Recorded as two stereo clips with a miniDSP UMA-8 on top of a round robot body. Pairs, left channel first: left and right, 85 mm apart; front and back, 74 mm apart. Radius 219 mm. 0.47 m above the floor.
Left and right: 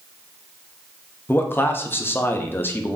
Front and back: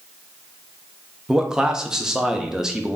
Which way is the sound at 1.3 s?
110° left.